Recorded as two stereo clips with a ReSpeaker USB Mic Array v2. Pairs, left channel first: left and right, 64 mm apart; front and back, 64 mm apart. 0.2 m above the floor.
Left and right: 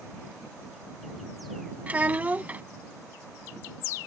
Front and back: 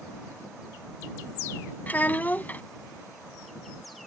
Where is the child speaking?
45° right.